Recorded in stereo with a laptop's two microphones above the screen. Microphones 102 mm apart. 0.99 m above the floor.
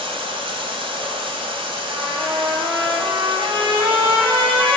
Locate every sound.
0.0 s running water: 60° right (ahead or behind), 2.5 m
1.9 s a trumpet: 50° right (ahead or behind), 6.5 m